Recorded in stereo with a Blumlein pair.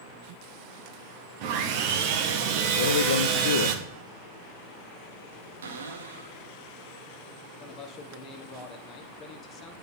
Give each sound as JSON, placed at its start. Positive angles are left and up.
{"t": 1.4, "sound": "sawing", "azimuth_deg": -45, "distance_m": 1.3}
{"t": 2.8, "sound": "a man speaking", "azimuth_deg": 65, "distance_m": 0.6}
{"t": 5.6, "sound": "a cupboard door", "azimuth_deg": -65, "distance_m": 1.3}
{"t": 7.6, "sound": "a man speaking", "azimuth_deg": 25, "distance_m": 1.6}